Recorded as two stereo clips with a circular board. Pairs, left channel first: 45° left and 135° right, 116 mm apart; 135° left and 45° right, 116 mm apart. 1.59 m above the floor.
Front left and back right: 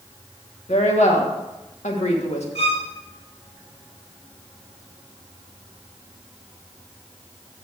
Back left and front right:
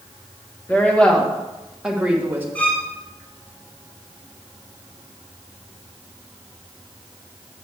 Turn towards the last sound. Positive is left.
turn(degrees=60)